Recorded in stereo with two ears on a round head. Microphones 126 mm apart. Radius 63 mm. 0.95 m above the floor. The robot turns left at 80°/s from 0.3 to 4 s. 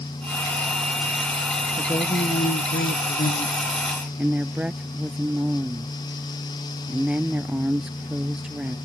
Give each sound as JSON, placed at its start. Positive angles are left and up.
{"t": 1.8, "sound": "a woman speaking", "azimuth_deg": 170}